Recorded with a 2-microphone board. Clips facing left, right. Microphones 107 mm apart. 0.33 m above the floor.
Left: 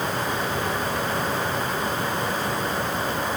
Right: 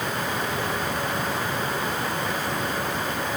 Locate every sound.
Only background noise.